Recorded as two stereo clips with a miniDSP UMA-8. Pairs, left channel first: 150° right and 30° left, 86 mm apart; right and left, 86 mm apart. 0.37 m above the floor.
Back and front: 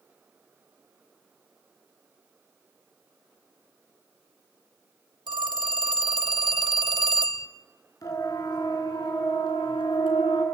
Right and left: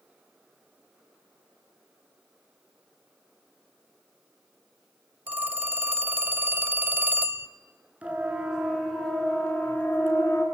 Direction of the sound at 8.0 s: 165° left.